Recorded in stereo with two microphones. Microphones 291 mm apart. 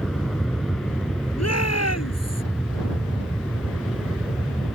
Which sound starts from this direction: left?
A shout, at 1.4 s.